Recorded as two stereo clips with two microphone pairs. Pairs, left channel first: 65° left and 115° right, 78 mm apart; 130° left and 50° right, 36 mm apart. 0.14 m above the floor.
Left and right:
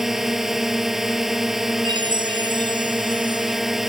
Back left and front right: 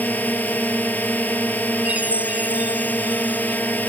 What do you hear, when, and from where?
0.0 s a drone: 160° left
1.9 s a chime: 95° right